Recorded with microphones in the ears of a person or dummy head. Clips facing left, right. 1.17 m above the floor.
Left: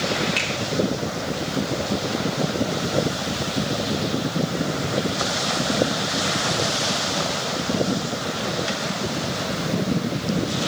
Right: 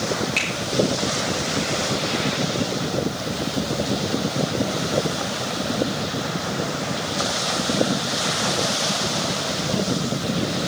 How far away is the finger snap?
About 3 m.